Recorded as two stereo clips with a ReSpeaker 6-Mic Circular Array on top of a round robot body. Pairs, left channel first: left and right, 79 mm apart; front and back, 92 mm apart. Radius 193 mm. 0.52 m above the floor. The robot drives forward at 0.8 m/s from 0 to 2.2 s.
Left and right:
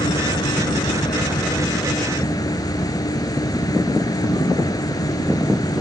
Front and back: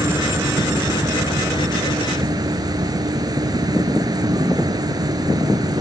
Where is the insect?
120° left; by 5.8 s 130° left.